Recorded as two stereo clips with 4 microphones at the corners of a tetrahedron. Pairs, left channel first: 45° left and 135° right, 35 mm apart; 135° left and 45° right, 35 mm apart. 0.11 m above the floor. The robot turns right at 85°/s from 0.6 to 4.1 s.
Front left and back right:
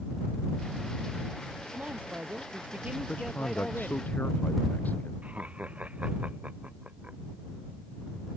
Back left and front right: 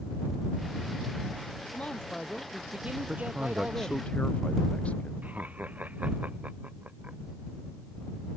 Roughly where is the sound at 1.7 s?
Behind.